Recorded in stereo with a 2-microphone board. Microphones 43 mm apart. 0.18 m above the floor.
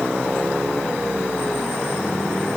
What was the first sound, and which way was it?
Only background noise.